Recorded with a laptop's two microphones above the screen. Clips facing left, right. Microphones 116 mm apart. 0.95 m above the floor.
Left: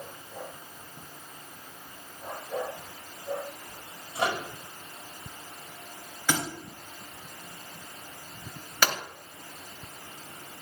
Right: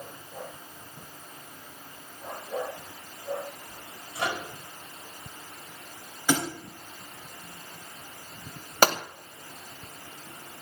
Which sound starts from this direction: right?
A gunshot, at 8.8 s.